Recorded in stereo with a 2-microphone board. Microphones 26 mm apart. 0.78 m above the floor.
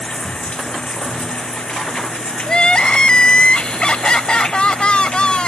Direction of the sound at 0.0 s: 40° left (ahead or behind).